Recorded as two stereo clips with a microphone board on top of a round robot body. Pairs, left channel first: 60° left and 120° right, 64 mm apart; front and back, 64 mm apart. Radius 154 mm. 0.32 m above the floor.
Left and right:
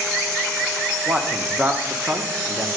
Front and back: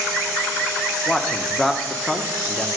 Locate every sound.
1.1 s a man speaking: 80° right, 1.2 m